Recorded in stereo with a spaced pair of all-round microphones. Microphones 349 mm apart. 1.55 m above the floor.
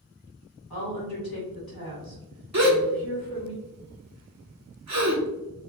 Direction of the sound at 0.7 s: 80° left.